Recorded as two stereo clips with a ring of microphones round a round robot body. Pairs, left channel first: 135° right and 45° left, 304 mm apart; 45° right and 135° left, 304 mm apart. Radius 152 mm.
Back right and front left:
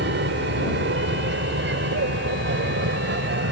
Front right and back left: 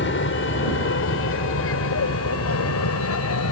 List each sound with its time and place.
0.0 s an aircraft: straight ahead; by 3.5 s 10° right